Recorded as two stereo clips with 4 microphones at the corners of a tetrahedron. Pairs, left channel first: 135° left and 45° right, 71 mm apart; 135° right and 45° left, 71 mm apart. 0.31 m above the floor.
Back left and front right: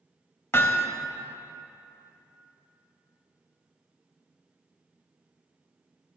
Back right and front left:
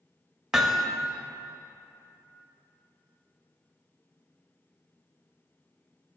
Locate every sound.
0.5 s hammering: 125° left, 0.7 m